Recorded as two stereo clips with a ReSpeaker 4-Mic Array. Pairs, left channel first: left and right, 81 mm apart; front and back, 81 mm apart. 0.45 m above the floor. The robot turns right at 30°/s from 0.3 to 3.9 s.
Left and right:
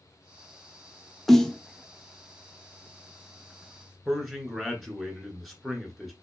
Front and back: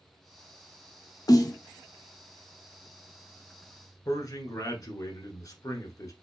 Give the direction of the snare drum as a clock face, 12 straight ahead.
12 o'clock.